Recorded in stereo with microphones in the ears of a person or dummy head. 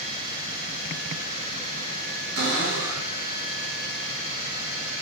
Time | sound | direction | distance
2.4 | a cupboard door | 65° right (ahead or behind) | 1.8 m